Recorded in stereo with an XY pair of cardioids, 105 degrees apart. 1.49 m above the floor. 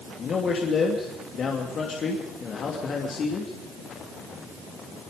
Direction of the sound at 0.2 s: 50° left.